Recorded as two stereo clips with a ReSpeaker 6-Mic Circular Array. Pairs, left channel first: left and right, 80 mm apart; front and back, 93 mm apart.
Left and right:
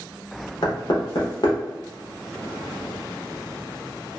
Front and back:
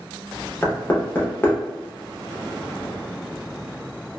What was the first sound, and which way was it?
Knocking, 70° left.